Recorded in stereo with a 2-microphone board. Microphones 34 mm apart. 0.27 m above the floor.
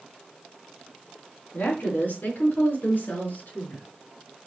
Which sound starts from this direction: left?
A woman speaking, at 1.5 s.